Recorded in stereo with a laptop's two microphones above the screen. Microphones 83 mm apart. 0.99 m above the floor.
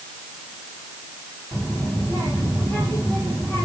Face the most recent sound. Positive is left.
turn(degrees=35)  # may be behind; listen again after turning